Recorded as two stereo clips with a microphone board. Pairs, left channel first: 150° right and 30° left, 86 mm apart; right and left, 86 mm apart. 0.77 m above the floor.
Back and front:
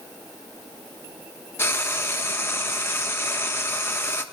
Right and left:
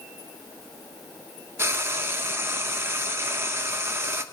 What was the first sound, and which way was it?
Frying, 150° left.